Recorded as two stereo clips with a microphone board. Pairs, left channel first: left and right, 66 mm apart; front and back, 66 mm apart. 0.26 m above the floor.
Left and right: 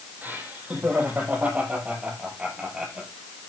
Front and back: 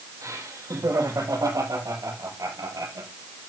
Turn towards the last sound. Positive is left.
turn(degrees=-170)